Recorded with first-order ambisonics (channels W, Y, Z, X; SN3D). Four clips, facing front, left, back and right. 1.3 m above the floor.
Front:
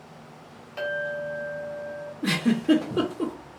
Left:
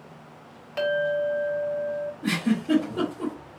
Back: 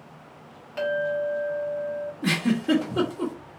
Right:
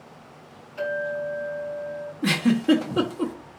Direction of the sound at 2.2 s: 110° right.